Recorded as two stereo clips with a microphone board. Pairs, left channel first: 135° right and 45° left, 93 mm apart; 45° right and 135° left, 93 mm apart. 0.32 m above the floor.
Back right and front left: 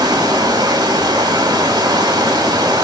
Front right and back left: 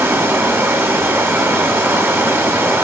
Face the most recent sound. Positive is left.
turn(degrees=75)